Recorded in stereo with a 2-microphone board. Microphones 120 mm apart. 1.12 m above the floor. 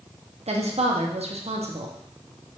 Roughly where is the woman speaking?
Right.